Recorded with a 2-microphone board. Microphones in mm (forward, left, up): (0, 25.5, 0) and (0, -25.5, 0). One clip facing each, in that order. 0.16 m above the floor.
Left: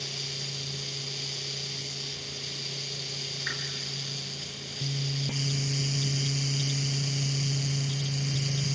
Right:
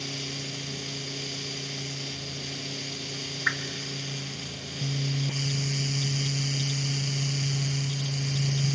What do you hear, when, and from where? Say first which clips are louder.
3.5 s a whoosh: right 8 dB; 50° right (ahead or behind), 1.4 m